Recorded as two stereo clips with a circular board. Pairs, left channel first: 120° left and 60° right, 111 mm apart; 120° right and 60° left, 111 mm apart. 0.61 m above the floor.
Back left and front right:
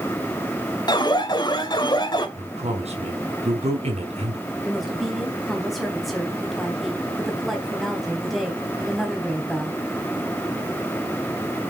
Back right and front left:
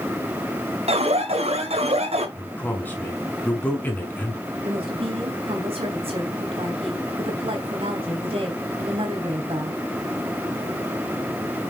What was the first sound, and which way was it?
An alarm, 75° left.